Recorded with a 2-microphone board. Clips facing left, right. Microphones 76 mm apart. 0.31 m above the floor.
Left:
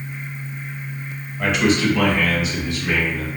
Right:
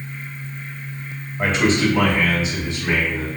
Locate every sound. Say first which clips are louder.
1.4 s a man speaking: even; 30° right (ahead or behind), 1.0 m; by 3.3 s 25° right (ahead or behind), 1.8 m